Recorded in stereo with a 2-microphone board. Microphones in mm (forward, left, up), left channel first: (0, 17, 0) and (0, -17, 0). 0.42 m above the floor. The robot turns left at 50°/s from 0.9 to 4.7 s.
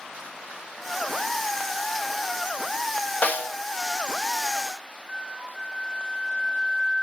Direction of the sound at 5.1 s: 25° right (ahead or behind).